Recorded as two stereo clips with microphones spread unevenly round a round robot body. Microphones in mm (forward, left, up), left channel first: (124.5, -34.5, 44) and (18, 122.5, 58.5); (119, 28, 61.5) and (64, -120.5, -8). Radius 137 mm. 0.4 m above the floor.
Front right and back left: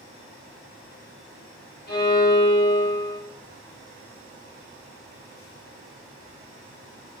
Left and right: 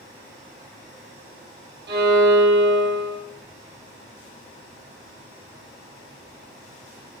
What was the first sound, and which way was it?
A violin, 110° right.